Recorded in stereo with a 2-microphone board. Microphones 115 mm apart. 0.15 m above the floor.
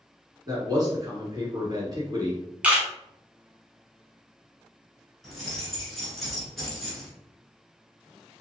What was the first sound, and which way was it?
A man speaking, 35° right (ahead or behind).